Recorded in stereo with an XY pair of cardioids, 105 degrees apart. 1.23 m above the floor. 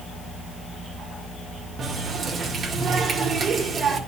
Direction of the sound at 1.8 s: 45° right.